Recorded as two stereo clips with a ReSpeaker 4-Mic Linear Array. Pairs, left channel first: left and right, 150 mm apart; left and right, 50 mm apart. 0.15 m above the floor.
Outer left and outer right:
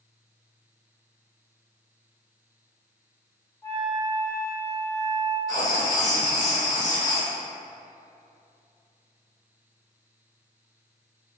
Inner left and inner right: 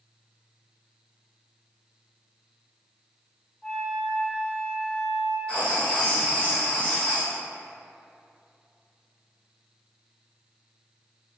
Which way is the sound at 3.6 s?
25° left (ahead or behind).